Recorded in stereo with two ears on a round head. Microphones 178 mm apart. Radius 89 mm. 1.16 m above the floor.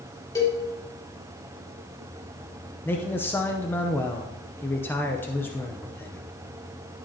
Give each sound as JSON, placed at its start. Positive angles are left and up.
{"t": 0.3, "sound": "a cowbell", "side_deg": 15, "distance_m": 2.0}
{"t": 2.9, "sound": "a man speaking", "side_deg": 10, "distance_m": 0.6}